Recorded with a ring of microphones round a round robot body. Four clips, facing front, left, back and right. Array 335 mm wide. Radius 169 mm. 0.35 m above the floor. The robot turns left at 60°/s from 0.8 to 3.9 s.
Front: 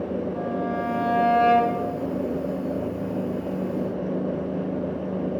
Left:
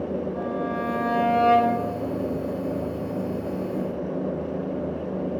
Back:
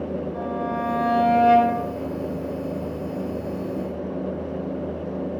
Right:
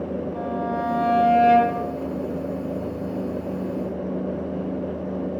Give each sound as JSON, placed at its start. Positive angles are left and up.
{"t": 0.3, "sound": "a violin", "azimuth_deg": -95, "distance_m": 2.0}